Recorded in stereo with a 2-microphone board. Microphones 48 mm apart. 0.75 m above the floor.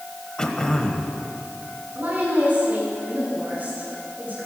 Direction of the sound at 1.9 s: 40° right (ahead or behind).